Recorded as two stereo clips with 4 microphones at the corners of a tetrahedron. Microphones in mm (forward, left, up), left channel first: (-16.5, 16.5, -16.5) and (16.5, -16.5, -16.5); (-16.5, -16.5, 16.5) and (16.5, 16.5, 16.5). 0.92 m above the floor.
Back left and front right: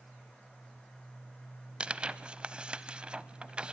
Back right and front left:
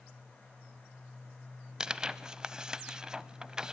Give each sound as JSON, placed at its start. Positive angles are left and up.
{"t": 1.8, "sound": "tearing paper", "azimuth_deg": -15, "distance_m": 0.8}